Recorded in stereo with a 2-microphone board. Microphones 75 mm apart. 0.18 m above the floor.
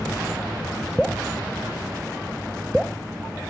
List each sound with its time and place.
1.0 s dripping: centre (ahead or behind), 0.6 m